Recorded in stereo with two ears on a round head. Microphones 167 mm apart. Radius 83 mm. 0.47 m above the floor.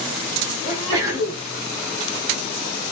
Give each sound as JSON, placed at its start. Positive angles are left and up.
{"t": 0.7, "sound": "a sneeze", "side_deg": -20, "distance_m": 3.0}